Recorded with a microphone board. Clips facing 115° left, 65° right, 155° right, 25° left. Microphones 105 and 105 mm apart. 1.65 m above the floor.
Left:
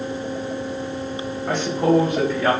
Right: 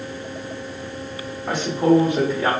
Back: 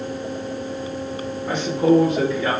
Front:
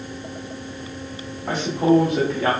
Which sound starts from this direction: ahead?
A man speaking, at 1.5 s.